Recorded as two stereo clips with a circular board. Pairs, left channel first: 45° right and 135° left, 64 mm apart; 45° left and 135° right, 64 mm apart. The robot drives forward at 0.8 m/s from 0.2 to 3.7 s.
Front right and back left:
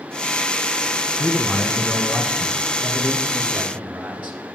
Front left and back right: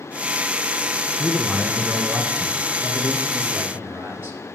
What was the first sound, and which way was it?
A man speaking, 45° right.